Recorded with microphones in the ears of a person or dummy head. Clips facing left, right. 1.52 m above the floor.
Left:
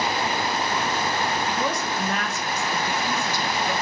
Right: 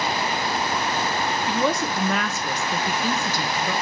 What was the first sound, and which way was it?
A woman speaking, 65° right (ahead or behind).